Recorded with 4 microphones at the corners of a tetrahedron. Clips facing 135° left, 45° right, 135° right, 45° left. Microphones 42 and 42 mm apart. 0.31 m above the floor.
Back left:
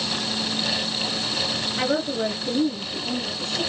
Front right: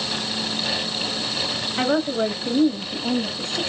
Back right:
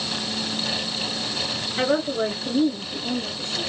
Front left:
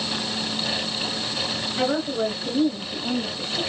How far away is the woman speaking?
About 1.3 m.